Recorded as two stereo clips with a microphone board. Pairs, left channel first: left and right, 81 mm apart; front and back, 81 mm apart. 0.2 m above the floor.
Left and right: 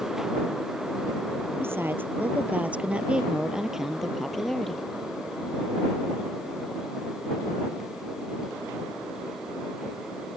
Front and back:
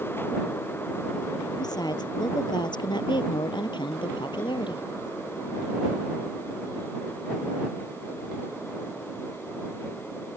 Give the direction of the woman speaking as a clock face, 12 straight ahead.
1 o'clock.